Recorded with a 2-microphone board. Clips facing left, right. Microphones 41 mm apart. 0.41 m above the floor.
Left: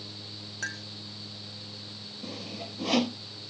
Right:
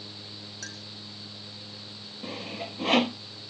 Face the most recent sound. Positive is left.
turn(degrees=-35)  # may be behind; listen again after turning